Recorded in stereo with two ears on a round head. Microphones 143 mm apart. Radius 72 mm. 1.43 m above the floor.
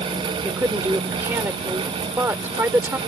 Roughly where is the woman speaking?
Centre.